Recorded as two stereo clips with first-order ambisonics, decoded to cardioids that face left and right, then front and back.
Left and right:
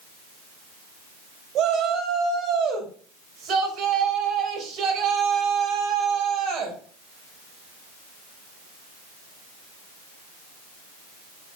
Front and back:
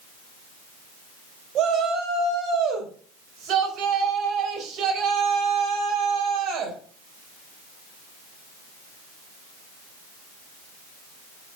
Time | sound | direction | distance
1.6 | a shout | 135° right | 4 m